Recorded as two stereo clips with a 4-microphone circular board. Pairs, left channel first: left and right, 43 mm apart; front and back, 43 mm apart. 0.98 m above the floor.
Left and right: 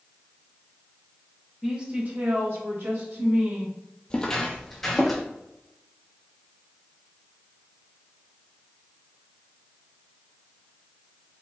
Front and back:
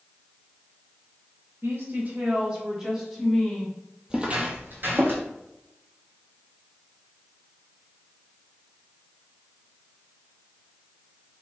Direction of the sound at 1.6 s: 160° right.